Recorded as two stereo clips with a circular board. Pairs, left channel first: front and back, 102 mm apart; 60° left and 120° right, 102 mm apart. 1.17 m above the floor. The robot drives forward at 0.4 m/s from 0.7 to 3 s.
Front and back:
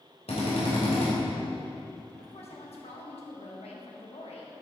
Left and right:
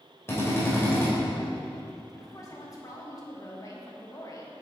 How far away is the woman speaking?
About 2.0 m.